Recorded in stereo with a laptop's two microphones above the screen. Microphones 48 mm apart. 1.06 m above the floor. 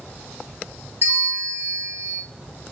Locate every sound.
1.0 s a bell: 45° right (ahead or behind), 1.1 m